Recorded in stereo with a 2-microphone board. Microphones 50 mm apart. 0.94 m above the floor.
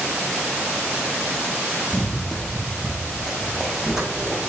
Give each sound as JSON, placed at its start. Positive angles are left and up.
{"t": 1.9, "sound": "running footsteps", "side_deg": 5, "distance_m": 1.8}